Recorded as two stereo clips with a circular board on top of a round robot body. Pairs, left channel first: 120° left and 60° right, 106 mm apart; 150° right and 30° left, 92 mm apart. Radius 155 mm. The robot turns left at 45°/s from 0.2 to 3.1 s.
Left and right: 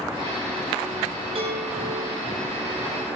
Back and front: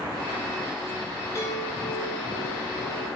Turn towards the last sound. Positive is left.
turn(degrees=-170)